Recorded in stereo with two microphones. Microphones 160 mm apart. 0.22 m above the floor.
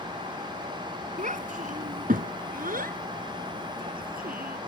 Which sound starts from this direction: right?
A child speaking, at 1.2 s.